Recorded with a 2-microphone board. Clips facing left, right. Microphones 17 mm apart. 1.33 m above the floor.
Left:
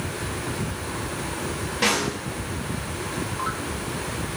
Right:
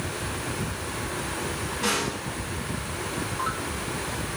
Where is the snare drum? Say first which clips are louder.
Left 4 dB; 80° left, 4.5 m.